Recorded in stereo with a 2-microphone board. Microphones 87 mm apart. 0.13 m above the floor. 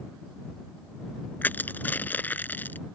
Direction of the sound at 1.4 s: 20° left (ahead or behind).